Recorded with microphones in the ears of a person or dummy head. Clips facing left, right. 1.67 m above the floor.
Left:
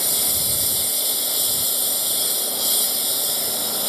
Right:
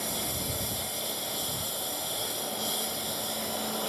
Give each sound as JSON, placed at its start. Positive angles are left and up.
{"t": 0.0, "sound": "a lawn mower", "side_deg": 65}